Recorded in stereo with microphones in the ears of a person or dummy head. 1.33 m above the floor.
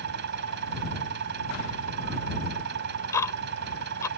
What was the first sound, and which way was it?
An engine running, 60° right (ahead or behind).